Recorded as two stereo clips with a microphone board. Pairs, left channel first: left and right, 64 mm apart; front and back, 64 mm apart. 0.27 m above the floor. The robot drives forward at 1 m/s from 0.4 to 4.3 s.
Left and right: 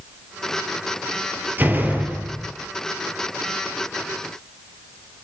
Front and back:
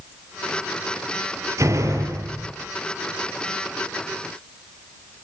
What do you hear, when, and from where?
1.6 s a door slam: 150° right, 4 m; by 2.5 s 155° right, 4.5 m